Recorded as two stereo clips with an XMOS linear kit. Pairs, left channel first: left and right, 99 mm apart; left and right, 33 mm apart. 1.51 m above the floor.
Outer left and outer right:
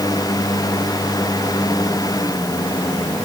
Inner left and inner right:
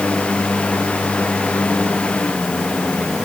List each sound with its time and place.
Only background noise.